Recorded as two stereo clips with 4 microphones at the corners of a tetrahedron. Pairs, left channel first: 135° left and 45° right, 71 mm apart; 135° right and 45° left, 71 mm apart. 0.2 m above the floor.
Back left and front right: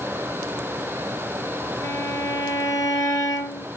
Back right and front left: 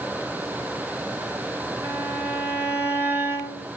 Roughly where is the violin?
Left.